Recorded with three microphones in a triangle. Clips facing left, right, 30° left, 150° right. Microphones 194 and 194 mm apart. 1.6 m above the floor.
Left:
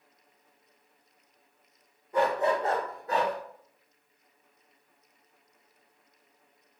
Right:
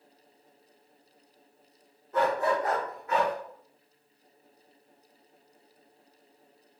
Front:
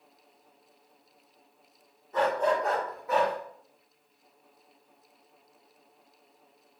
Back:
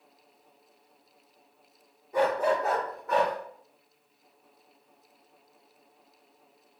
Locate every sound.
2.1 s a dog barking: 150° left, 1.0 m; by 3.3 s 115° left, 1.3 m